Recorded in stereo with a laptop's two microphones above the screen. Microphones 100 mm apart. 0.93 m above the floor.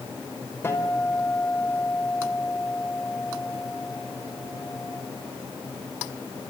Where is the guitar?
20° left (ahead or behind), 4.5 m.